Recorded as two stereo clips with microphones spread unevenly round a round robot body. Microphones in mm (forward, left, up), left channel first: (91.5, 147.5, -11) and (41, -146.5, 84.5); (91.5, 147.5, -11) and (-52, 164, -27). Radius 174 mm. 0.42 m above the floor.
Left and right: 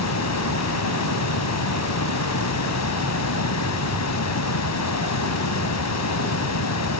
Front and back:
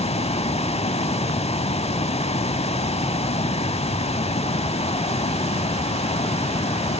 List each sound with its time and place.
0.0 s running water: 45° left, 1.0 m